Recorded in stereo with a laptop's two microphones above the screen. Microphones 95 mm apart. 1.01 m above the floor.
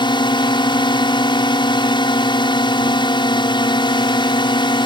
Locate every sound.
0.0 s a drone: 60° left (ahead or behind)